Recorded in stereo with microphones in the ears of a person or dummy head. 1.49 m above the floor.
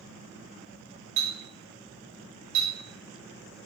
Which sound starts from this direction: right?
A clink, at 1.2 s.